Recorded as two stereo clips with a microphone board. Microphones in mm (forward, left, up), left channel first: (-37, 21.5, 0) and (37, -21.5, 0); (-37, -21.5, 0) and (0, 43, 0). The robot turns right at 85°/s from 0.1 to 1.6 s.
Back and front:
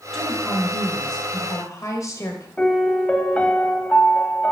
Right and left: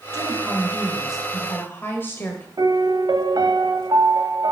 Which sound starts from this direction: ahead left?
A woman speaking, at 0.1 s.